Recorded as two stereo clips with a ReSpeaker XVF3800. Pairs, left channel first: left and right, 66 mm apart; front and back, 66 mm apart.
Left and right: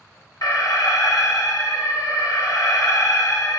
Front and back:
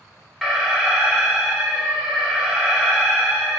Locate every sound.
0.4 s an alarm: 90° left, 0.6 m